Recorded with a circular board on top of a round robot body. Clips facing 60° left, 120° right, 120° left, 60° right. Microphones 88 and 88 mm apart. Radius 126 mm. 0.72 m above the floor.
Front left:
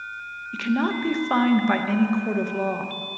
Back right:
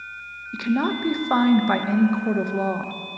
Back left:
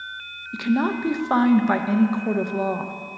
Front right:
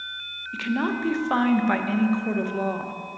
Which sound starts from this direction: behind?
A woman speaking, at 0.5 s.